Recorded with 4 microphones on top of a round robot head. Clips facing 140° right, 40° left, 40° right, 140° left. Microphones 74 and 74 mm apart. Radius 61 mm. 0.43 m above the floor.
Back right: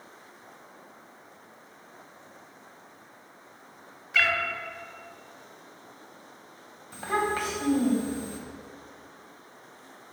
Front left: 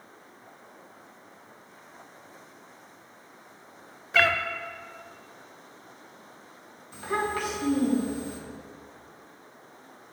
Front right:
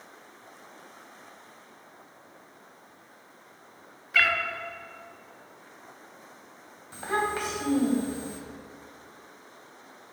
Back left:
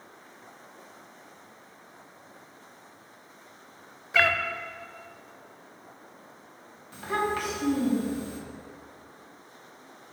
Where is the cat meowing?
80° left, 0.6 m.